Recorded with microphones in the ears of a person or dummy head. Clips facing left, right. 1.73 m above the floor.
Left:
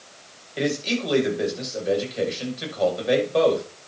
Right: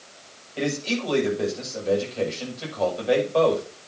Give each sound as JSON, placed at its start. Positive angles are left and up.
{"t": 0.6, "sound": "a man speaking", "side_deg": 15, "distance_m": 7.5}